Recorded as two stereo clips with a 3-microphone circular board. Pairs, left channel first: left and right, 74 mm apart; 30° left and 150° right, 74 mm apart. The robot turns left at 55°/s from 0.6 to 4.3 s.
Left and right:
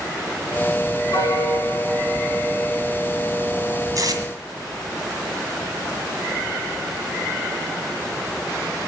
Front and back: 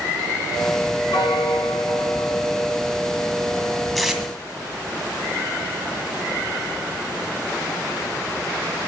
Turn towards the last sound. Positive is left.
turn(degrees=-75)